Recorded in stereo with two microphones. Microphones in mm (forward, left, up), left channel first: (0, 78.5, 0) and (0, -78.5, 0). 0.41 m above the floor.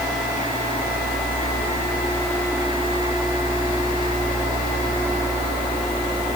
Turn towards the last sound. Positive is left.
No sound to turn to.